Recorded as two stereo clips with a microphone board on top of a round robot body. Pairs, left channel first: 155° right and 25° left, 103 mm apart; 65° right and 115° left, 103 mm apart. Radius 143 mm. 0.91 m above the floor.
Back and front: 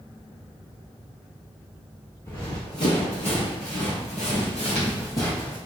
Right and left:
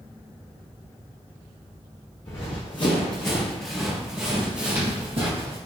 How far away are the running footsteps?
About 1.8 m.